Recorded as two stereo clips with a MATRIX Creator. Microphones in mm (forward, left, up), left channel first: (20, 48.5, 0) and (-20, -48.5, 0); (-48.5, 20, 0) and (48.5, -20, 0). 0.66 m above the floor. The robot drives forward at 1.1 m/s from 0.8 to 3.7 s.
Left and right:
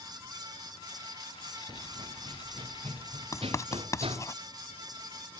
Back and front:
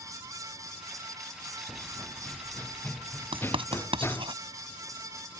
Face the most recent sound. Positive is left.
turn(degrees=10)